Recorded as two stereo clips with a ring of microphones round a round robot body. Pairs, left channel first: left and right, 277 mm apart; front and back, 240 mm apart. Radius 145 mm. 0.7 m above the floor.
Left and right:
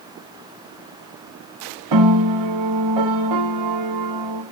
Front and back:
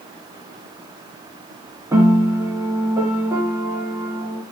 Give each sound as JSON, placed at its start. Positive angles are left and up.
{"t": 1.9, "sound": "a piano", "azimuth_deg": -100, "distance_m": 1.1}